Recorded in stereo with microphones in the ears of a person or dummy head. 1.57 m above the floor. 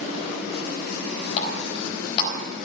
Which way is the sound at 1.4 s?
45° left (ahead or behind).